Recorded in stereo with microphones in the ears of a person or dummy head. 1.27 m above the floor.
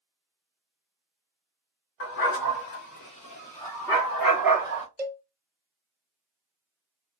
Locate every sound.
2.0 s a dog barking: 60° left (ahead or behind), 1.4 m; by 4.9 s 15° right (ahead or behind), 1.4 m
5.0 s a cowbell: 15° right (ahead or behind), 0.6 m